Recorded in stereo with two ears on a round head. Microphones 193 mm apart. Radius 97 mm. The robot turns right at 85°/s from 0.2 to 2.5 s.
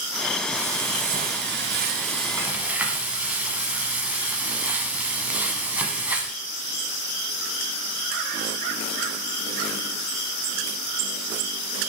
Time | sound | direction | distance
0.5 | frying | straight behind | 1.0 m